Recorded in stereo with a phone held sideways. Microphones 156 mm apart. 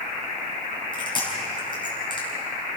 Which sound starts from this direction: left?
Chewing, at 0.9 s.